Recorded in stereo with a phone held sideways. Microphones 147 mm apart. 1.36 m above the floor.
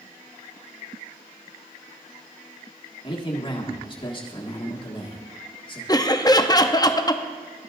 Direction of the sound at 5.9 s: 25° left (ahead or behind).